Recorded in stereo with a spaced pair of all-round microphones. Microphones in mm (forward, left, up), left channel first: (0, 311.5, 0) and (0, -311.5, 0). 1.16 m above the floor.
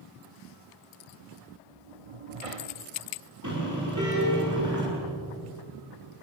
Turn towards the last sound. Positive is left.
turn(degrees=-30)  # may be behind; listen again after turning